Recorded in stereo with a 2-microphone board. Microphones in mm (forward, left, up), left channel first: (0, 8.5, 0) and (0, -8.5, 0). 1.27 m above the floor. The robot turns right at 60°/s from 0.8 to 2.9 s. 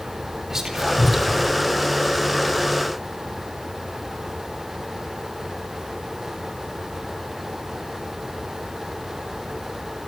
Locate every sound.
0.5 s whispering: 25° right (ahead or behind), 3.5 m; by 1.6 s 20° left (ahead or behind), 3.5 m